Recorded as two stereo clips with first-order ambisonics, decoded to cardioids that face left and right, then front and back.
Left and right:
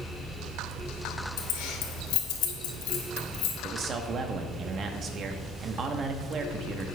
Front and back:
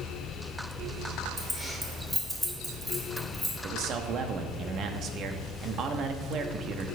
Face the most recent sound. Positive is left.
turn(degrees=-140)